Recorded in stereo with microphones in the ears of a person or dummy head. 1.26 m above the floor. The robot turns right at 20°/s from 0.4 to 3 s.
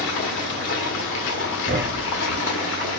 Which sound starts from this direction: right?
A thud, at 1.7 s.